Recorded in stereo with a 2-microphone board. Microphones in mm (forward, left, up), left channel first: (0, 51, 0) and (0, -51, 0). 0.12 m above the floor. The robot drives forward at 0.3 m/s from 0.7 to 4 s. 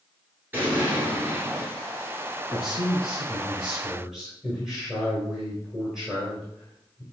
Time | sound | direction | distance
0.5 | an explosion | 20° right (ahead or behind) | 1.2 m
2.5 | a man speaking | 5° right (ahead or behind) | 1.2 m